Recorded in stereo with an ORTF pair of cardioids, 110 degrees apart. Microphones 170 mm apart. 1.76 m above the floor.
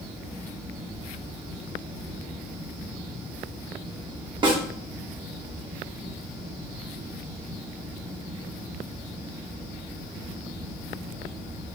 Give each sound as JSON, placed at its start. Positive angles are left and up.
{"t": 0.0, "sound": "a fan", "azimuth_deg": -15, "distance_m": 1.3}
{"t": 4.4, "sound": "a snare drum", "azimuth_deg": -30, "distance_m": 0.9}